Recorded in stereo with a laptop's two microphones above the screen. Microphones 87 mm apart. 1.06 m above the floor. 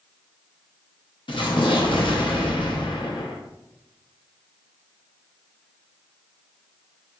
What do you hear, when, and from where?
1.3 s an explosion: 70° left (ahead or behind), 0.7 m